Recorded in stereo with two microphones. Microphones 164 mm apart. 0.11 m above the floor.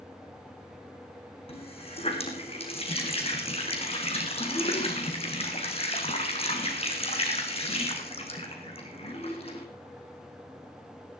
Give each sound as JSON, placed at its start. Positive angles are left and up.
{"t": 1.5, "sound": "a running tap", "side_deg": 35, "distance_m": 4.0}